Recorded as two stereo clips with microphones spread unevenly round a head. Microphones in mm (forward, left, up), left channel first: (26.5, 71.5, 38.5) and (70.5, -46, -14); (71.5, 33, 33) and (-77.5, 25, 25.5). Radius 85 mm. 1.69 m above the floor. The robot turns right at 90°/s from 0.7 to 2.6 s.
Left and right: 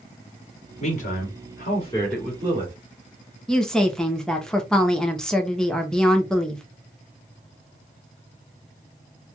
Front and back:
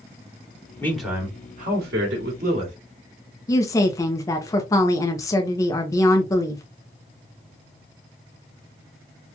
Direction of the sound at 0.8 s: 75° left.